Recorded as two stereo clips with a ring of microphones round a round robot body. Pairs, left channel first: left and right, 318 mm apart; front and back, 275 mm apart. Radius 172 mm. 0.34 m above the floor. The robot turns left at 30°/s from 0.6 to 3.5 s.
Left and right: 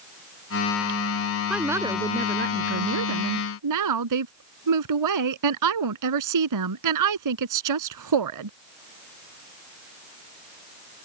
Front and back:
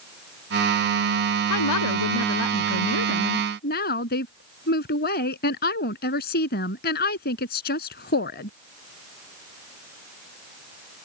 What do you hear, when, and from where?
1.5 s a woman speaking: straight ahead; by 8.5 s 60° right